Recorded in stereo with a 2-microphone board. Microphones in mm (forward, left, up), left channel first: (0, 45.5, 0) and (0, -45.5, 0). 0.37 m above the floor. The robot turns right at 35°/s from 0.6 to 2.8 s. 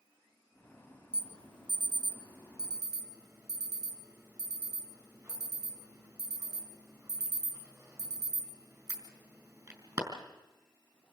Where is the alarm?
75° right (ahead or behind), 3.5 m; by 10.0 s 40° right (ahead or behind), 3.5 m.